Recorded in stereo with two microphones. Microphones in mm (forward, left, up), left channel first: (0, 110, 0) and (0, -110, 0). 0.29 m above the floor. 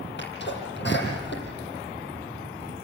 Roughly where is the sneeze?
Left.